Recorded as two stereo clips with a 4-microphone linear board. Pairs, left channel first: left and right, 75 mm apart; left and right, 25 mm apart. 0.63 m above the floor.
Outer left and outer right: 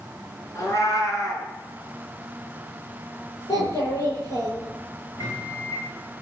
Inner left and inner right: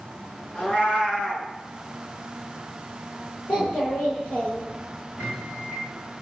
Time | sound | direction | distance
0.6 | a cat meowing | 45° left (ahead or behind) | 3.5 m
3.5 | a child speaking | 50° left (ahead or behind) | 8.5 m
5.2 | a microwave | 50° left (ahead or behind) | 7.5 m